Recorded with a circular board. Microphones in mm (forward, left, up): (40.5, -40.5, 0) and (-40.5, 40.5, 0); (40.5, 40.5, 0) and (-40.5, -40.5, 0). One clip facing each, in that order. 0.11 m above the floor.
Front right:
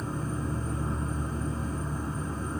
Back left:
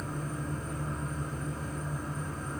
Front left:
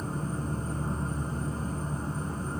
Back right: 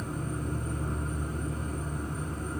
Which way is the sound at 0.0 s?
Straight ahead.